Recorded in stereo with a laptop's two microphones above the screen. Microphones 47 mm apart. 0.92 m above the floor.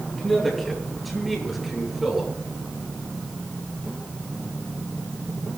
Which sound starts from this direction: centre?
A man speaking, at 0.2 s.